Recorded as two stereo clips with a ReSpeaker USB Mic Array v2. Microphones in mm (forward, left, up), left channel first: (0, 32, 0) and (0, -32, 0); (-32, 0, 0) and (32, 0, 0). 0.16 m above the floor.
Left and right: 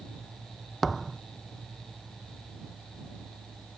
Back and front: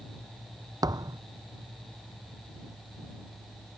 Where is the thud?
5° left.